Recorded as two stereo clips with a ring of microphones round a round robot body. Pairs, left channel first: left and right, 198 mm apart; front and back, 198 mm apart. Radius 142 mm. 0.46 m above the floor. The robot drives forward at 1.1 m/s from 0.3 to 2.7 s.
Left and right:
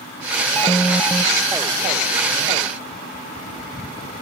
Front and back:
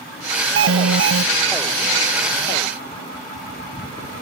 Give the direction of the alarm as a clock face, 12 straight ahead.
6 o'clock.